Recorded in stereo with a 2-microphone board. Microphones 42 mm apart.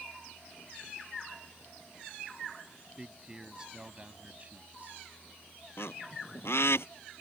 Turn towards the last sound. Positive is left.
turn(degrees=80)